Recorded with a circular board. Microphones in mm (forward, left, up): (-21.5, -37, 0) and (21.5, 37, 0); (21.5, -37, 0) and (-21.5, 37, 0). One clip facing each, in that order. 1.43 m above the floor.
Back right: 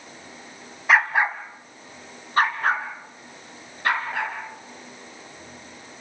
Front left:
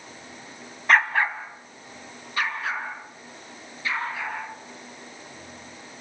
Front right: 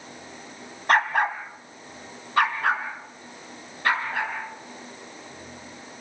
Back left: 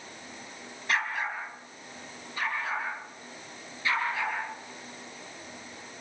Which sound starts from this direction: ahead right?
A dog barking, at 0.9 s.